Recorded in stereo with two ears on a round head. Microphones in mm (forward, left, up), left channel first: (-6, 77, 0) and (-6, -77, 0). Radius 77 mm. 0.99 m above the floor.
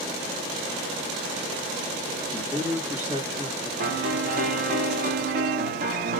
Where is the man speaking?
15° right (ahead or behind), 1.4 m.